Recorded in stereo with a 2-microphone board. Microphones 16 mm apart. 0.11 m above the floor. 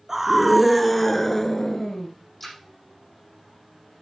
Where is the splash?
20° left (ahead or behind), 4.5 m.